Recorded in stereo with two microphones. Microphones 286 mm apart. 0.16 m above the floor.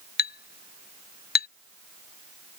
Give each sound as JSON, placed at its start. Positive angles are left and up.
{"t": 0.2, "sound": "a clink", "side_deg": 35}